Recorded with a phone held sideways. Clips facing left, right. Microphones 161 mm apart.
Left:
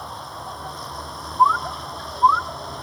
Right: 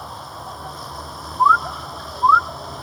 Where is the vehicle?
Centre (ahead or behind).